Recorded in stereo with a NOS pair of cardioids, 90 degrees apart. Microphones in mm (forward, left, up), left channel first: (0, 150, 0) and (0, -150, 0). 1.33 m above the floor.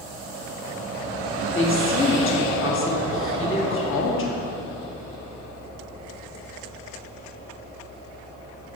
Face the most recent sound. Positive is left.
turn(degrees=40)